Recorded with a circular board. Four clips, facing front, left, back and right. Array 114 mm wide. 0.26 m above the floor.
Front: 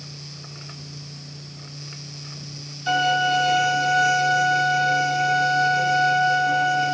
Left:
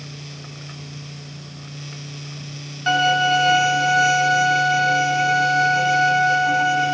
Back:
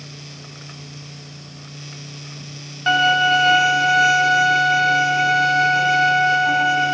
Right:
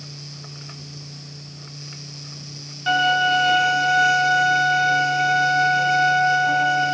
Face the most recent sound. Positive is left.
turn(degrees=165)